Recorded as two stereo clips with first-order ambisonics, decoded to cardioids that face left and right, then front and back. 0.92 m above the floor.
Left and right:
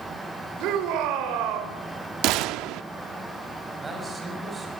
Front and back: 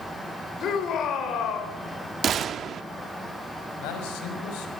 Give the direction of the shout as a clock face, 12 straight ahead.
2 o'clock.